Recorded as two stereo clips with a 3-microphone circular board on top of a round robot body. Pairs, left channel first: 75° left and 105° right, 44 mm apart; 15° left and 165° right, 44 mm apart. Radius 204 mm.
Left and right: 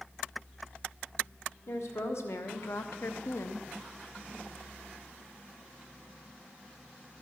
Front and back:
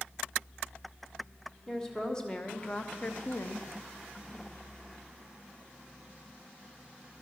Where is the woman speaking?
95° left, 1.7 m; by 3.7 s 40° left, 0.7 m.